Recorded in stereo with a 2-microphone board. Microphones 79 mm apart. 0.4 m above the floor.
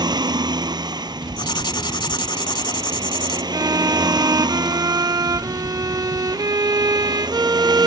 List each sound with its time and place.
0.0 s a vehicle: 65° right (ahead or behind)
1.4 s writing: 75° left (ahead or behind)
3.5 s a violin: 50° right (ahead or behind)